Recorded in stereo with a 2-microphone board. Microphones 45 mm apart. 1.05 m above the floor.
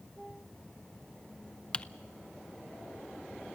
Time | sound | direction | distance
1.7 | typing on a keyboard | 20° left (ahead or behind) | 0.5 m